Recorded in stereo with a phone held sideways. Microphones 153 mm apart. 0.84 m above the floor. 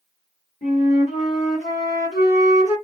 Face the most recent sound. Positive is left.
turn(degrees=50)  # may be behind; listen again after turning